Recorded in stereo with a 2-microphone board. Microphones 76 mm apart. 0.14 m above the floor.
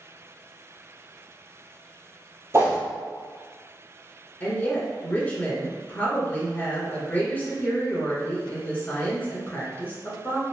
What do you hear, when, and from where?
2.5 s a whoosh: 40° right (ahead or behind), 0.9 m
4.4 s a woman speaking: 25° left (ahead or behind), 1.3 m